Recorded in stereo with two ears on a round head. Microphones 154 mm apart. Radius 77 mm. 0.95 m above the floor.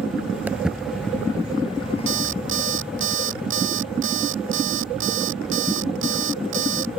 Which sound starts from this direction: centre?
Footsteps, at 0.5 s.